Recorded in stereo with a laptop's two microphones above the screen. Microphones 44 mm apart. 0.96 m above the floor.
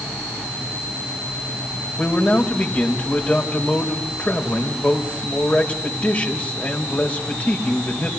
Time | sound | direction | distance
2.0 | a man speaking | 40° left (ahead or behind) | 4.5 m